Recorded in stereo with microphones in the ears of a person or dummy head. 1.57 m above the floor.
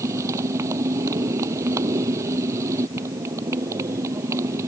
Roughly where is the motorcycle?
Centre.